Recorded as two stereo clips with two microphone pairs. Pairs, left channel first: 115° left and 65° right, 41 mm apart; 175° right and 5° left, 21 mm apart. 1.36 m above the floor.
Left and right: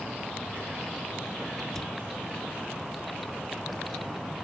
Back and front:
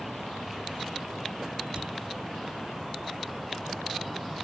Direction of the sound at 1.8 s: 40° left.